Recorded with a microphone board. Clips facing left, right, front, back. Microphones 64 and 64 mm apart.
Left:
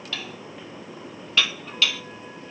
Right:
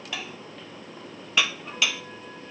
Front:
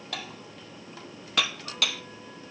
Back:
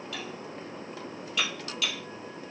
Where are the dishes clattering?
15° right, 1.8 m.